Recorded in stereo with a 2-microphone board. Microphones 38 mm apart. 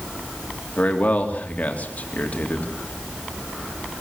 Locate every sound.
0.8 s a man speaking: 45° left (ahead or behind), 3.5 m